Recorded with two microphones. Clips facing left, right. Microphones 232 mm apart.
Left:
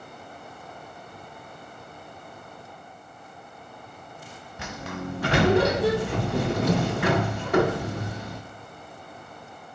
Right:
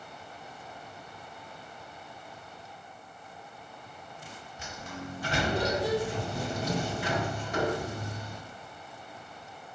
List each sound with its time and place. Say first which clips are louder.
4.6 s a sliding door: left 7 dB; 70° left (ahead or behind), 0.8 m